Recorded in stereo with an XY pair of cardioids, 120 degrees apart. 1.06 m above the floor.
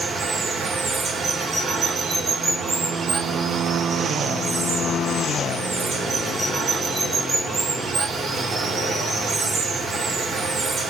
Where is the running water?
35° right, 1.7 m.